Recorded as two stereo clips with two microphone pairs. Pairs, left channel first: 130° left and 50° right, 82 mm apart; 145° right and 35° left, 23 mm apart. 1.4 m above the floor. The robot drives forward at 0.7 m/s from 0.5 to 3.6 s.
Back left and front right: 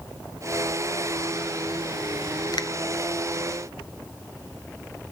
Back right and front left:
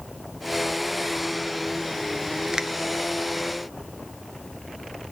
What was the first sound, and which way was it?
A finger snap, 100° left.